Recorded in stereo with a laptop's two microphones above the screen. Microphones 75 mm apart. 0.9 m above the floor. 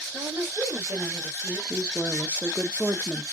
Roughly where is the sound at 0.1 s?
Right.